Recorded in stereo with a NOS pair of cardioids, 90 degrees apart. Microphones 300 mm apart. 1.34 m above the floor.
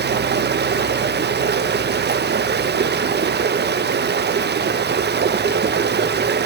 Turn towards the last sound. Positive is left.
turn(degrees=-35)